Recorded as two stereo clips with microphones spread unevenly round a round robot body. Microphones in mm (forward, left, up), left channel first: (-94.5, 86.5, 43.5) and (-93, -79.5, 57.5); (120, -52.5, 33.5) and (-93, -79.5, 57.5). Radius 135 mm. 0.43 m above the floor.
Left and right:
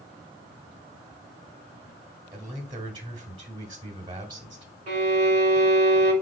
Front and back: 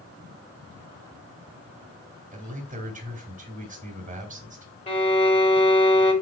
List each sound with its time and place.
2.3 s a man speaking: 135° right, 1.2 m
4.9 s a violin: 50° right, 1.6 m